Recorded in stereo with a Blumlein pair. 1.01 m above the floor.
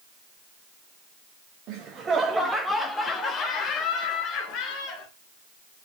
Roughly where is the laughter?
Ahead right.